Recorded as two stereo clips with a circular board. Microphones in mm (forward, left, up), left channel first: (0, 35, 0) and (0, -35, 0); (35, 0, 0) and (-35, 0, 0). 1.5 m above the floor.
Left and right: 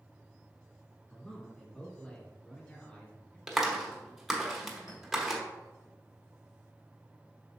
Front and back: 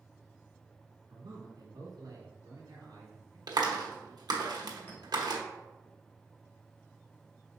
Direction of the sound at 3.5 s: Straight behind.